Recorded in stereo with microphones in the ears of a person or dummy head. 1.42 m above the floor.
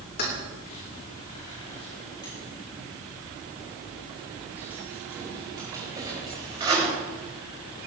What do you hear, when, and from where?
0.2 s keys jangling: 50° left (ahead or behind), 3 m; by 6.9 s 25° right (ahead or behind), 4.5 m